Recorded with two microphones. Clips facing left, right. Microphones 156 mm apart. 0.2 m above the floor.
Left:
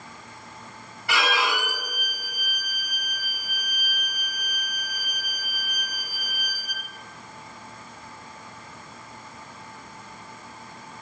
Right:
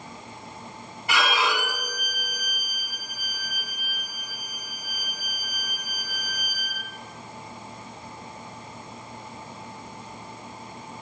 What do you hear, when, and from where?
1.1 s a violin: 20° right (ahead or behind), 1.9 m